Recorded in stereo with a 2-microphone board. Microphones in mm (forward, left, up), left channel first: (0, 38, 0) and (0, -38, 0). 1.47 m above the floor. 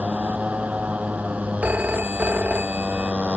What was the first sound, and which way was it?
A motorcycle, 20° right (ahead or behind).